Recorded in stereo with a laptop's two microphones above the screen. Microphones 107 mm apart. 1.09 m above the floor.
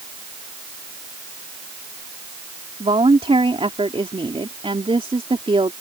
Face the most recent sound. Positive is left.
turn(degrees=-60)  # may be behind; listen again after turning